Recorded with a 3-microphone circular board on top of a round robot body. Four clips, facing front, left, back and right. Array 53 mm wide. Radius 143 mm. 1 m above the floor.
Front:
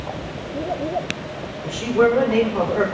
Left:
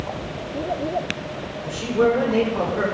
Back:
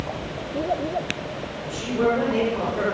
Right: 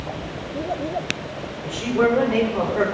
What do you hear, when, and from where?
1.6 s a man speaking: 40° right, 5 m